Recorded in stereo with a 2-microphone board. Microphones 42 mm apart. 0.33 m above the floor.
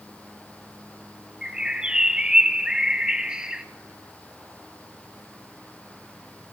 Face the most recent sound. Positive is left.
turn(degrees=-20)  # may be behind; listen again after turning